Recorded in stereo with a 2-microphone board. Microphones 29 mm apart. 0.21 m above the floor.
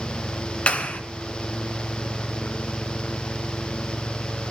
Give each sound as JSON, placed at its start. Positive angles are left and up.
{"t": 0.7, "sound": "a clap", "side_deg": 45, "distance_m": 2.5}